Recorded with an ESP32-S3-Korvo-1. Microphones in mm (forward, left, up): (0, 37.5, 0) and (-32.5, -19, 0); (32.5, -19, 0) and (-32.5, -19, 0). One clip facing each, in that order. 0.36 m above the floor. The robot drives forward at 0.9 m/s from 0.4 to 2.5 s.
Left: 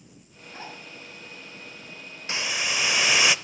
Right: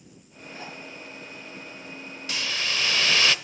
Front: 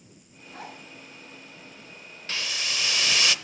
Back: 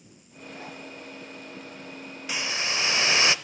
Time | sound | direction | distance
0.5 | a zipper | 5° left | 3.5 m
2.3 | a hiss | 110° left | 0.6 m